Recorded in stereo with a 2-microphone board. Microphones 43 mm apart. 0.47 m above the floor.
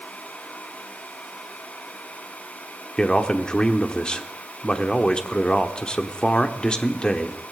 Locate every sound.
3.0 s a man speaking: 20° left (ahead or behind), 1.0 m